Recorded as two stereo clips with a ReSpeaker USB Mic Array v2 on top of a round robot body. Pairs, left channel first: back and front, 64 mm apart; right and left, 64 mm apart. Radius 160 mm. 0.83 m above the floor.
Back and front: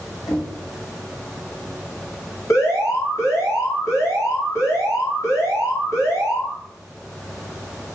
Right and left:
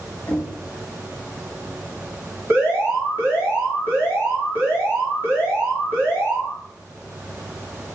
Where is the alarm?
145° left, 3.5 m.